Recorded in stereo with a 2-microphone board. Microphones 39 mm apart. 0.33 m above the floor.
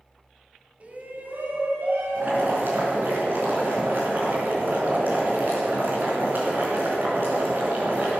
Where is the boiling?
60° right (ahead or behind), 4.5 m.